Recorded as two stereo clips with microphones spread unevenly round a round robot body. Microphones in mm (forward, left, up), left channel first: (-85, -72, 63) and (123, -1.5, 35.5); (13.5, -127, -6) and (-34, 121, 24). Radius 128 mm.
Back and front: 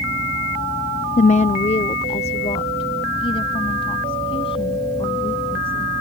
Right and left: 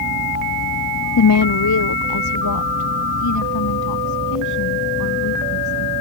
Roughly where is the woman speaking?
Right.